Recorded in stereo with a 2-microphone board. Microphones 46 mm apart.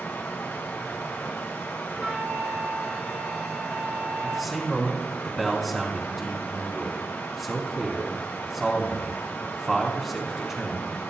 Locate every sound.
0.0 s running water: 60° left (ahead or behind), 3.5 m
1.9 s a flute: 15° right (ahead or behind), 6 m
4.2 s a man speaking: centre (ahead or behind), 2.5 m